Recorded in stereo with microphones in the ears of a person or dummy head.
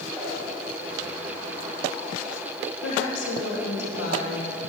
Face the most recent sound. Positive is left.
turn(degrees=85)